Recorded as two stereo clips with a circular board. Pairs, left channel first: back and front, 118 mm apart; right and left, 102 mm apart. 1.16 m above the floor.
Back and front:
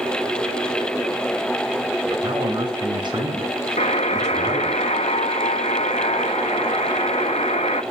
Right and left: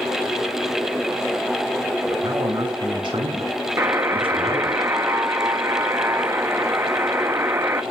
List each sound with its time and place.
2.1 s a man speaking: 40° left, 6 m; by 4.8 s 65° left, 6.5 m
3.8 s a buzzer: 155° left, 1.4 m